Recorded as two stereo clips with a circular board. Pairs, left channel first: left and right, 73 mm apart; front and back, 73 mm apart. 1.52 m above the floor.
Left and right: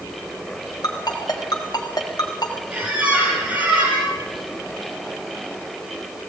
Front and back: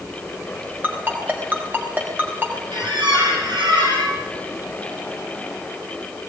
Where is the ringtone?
120° left, 4 m.